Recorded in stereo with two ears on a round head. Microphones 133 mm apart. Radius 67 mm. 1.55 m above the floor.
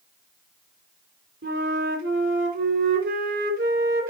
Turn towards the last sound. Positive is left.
turn(degrees=-70)  # may be behind; listen again after turning